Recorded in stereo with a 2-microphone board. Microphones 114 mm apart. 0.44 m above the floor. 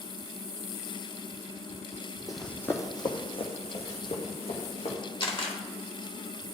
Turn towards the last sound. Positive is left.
turn(degrees=50)  # may be behind; listen again after turning